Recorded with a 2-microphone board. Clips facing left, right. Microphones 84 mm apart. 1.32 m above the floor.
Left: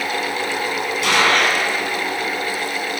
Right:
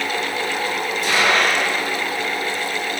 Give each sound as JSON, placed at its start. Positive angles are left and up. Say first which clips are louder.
{"t": 1.0, "sound": "a gunshot", "louder": "left 1 dB", "side_deg": 70, "distance_m": 3.5}